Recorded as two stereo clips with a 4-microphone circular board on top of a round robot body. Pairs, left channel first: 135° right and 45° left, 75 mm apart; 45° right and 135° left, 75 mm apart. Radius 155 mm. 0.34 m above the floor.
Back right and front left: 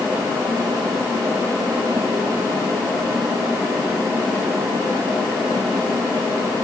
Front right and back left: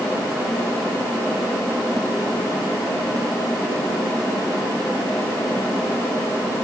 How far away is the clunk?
I don't hear a clunk.